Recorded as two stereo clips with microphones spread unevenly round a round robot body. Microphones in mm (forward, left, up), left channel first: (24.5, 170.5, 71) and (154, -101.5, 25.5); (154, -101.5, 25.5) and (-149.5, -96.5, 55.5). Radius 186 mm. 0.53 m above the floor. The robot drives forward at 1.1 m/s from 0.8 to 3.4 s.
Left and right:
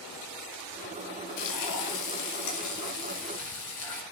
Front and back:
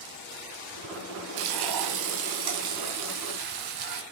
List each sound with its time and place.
1.4 s frying: 155° left, 2.5 m; by 4.0 s 165° left, 4.5 m